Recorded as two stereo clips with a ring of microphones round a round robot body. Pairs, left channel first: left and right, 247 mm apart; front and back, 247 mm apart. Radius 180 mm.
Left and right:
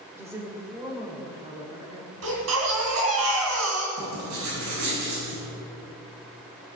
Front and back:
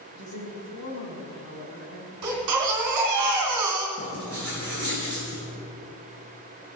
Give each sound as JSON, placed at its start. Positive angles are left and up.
{"t": 0.1, "sound": "a woman speaking", "azimuth_deg": -10, "distance_m": 3.0}
{"t": 2.2, "sound": "a baby crying", "azimuth_deg": -145, "distance_m": 2.5}
{"t": 4.0, "sound": "writing", "azimuth_deg": -95, "distance_m": 5.5}